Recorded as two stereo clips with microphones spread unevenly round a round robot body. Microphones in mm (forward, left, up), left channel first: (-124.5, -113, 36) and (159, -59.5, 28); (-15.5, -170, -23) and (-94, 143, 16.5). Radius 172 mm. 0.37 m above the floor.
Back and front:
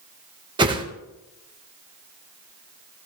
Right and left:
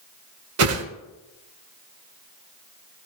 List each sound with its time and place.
0.6 s a whoosh: 75° left, 1.2 m